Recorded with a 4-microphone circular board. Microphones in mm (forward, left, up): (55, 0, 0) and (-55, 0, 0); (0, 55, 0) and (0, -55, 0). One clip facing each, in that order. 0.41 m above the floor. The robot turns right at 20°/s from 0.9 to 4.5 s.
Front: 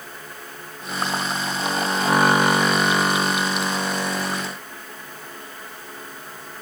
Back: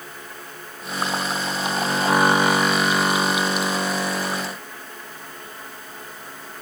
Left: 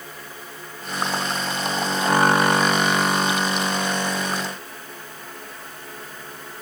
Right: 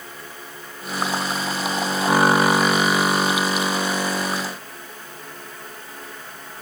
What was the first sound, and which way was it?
Only background noise.